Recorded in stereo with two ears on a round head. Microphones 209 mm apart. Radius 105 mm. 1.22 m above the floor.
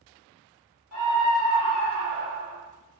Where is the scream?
75° left (ahead or behind), 1.8 m.